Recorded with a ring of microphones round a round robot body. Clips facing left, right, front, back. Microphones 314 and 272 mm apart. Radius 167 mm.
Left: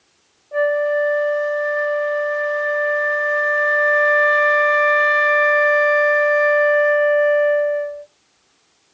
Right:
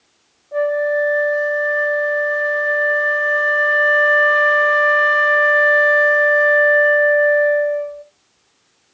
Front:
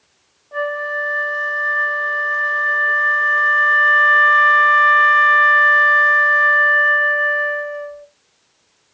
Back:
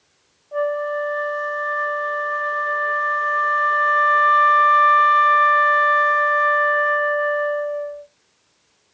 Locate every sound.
0.5 s a flute: 5° left, 1.6 m